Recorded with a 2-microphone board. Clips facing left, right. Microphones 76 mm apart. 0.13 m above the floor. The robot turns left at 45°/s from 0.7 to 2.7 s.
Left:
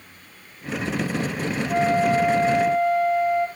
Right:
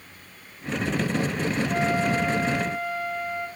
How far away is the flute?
About 4 m.